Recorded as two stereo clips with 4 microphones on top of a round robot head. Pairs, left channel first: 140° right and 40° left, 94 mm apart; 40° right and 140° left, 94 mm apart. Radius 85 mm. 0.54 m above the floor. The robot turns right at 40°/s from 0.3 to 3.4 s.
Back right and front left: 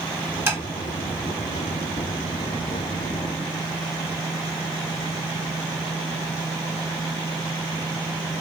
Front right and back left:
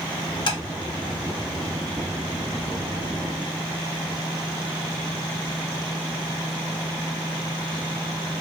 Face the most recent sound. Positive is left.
turn(degrees=90)